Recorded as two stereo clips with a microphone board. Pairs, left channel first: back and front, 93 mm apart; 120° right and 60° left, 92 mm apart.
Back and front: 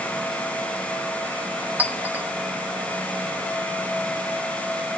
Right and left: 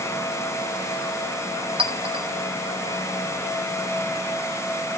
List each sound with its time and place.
1.8 s a clink: 70° left, 1.4 m